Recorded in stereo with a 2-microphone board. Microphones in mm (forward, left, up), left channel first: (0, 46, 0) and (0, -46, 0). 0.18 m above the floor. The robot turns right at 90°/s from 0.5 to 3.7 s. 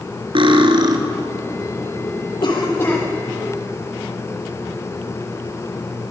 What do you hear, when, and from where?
0.3 s cutlery clinking: 90° right, 2.0 m; by 1.0 s 50° right, 2.0 m
2.4 s a cough: 115° left, 7.5 m; by 3.0 s 170° left, 7.5 m